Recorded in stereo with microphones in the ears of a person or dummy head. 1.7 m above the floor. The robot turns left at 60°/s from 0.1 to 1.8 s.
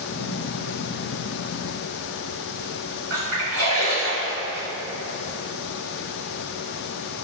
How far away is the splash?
About 1.4 m.